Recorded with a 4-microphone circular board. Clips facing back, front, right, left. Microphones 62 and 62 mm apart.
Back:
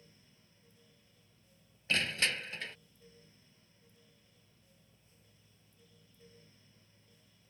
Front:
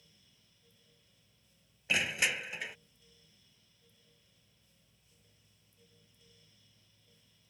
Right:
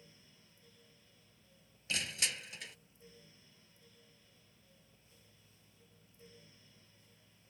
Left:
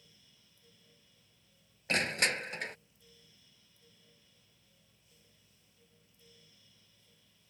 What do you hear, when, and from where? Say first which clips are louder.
1.9 s crushing: front 1 dB, left 8 dB; 75° left